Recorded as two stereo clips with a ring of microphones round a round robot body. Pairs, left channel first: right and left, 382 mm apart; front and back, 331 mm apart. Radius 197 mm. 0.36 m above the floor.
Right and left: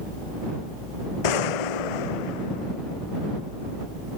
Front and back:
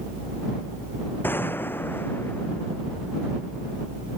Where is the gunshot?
85° right.